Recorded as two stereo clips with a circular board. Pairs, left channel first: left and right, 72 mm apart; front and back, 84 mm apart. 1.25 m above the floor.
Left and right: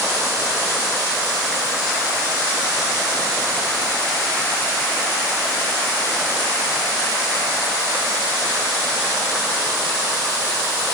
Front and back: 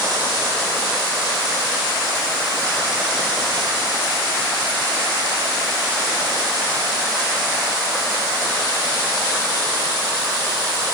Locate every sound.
Only background noise.